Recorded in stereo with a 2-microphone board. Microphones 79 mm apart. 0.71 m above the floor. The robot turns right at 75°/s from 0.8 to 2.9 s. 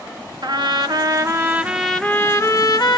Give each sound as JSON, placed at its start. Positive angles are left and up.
{"t": 0.4, "sound": "a trumpet", "azimuth_deg": -80, "distance_m": 1.2}